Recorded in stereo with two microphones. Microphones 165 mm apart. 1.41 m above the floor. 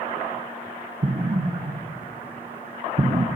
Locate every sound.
1.0 s an explosion: 50° right (ahead or behind), 0.9 m